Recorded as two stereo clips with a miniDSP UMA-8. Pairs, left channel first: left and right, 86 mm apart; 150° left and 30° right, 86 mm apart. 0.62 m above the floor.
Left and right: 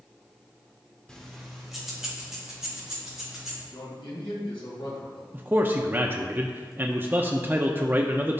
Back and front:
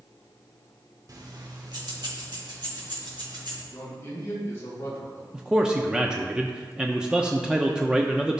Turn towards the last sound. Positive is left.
turn(degrees=-100)